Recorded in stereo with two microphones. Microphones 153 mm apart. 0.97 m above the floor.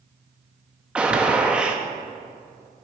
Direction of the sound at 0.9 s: 5° right (ahead or behind).